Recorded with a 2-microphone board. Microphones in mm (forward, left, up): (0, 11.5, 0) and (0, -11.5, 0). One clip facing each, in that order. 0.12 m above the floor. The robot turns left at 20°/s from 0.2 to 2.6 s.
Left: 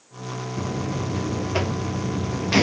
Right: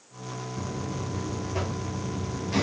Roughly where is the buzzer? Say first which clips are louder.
Left 6 dB; behind left.